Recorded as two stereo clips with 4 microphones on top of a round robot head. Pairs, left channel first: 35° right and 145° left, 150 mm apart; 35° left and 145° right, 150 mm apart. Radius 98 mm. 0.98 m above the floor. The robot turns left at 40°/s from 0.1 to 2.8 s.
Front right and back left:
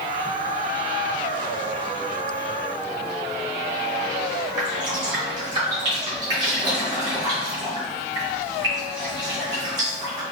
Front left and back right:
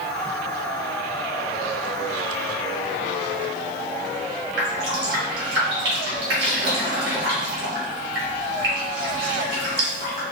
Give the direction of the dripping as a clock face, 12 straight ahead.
5 o'clock.